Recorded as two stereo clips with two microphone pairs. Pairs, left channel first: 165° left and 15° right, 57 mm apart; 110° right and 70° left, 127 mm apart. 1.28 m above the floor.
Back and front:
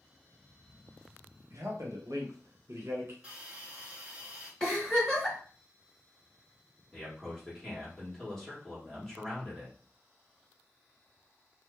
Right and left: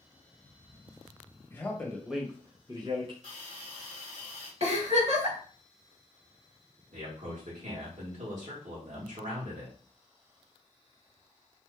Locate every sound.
1.5 s a man speaking: 45° right, 1.2 m; by 3.1 s 25° left, 1.1 m
3.2 s a hiss: 55° left, 1.7 m
4.6 s a giggle: 80° left, 1.9 m
6.9 s a man speaking: 80° left, 1.4 m